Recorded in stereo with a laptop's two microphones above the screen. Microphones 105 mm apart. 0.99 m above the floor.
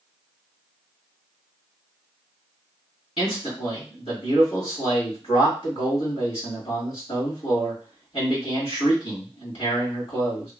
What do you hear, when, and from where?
3.2 s a man speaking: 70° left (ahead or behind), 2 m